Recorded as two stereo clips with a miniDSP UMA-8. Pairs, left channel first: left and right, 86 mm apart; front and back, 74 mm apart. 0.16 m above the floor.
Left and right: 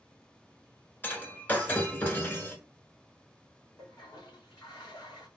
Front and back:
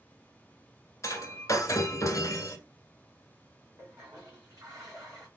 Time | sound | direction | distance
1.0 | breaking glass | 30° left | 1.0 m
3.8 | a toilet flushing | 130° left | 2.5 m